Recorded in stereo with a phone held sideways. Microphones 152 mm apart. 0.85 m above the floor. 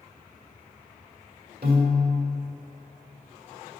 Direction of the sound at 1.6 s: 80° right.